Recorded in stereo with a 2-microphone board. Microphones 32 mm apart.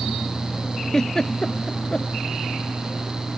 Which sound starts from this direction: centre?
A giggle, at 0.9 s.